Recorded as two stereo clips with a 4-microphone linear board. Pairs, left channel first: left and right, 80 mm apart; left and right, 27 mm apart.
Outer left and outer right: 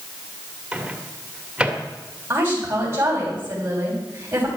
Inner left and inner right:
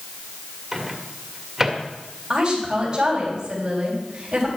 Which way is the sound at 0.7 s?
15° right (ahead or behind).